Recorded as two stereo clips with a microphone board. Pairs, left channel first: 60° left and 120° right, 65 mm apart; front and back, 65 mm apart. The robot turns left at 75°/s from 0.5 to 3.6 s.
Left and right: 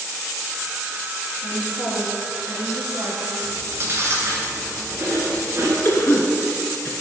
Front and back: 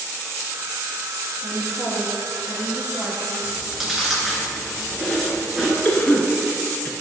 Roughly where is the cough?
Ahead left.